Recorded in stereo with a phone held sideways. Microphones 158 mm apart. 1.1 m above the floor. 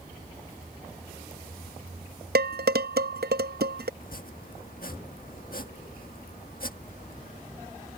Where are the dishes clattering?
80° right.